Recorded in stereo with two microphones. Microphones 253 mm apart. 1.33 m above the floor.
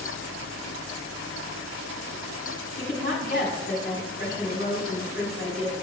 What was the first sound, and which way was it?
A woman speaking, 35° left (ahead or behind).